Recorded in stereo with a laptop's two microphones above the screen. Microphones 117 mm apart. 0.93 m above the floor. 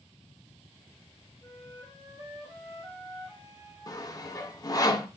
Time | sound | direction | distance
1.4 | a flute | 30° right (ahead or behind) | 3 m
3.9 | sawing | 30° left (ahead or behind) | 0.5 m